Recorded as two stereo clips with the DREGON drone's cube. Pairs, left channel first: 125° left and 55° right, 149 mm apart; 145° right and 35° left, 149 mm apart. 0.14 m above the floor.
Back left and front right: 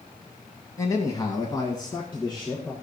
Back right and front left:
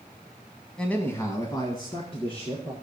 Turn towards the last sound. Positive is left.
turn(degrees=180)